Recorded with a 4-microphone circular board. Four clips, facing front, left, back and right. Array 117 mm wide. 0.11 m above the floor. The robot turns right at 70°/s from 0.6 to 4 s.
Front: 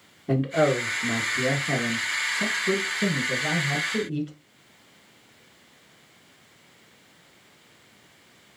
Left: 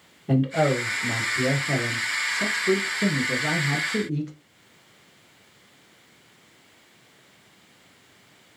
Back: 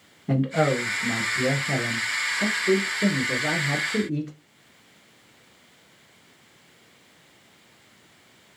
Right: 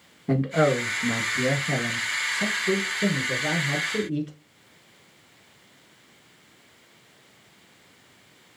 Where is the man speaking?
90° right, 1.2 m; by 4.3 s 145° left, 1.2 m.